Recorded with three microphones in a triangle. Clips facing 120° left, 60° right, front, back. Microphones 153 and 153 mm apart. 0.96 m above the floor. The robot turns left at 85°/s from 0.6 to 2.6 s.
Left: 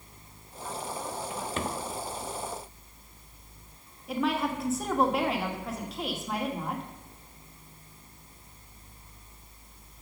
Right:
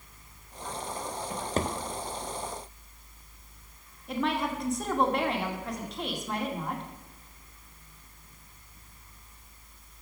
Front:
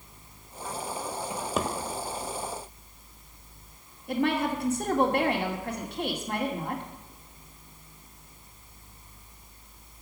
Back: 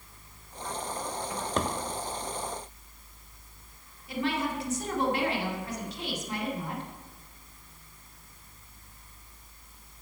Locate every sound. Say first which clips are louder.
1.3 s a drawer: right 4 dB, front 1 dB; 60° right, 0.9 m; by 1.7 s 95° right, 0.9 m
4.1 s a woman speaking: left 1 dB, front 4 dB; 35° left, 2 m